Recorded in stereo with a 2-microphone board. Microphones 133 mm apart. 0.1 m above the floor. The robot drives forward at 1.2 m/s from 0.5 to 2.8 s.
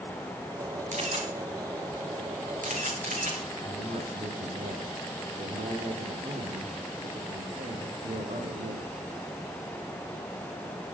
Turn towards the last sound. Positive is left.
turn(degrees=-75)  # may be behind; listen again after turning